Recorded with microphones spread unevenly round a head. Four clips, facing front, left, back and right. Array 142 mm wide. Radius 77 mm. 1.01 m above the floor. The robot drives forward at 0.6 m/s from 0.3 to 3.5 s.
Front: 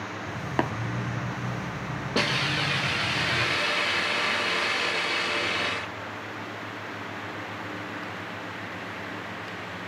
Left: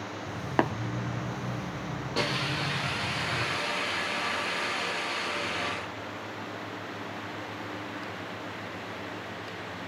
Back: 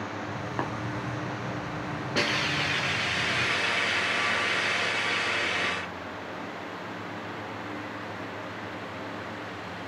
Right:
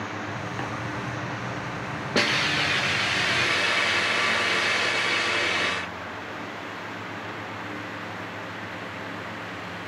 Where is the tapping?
70° left, 0.8 m; by 0.7 s 75° left, 0.8 m.